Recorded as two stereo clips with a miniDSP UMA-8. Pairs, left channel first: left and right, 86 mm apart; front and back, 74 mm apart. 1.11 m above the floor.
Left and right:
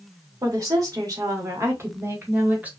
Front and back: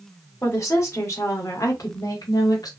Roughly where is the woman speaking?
Ahead right.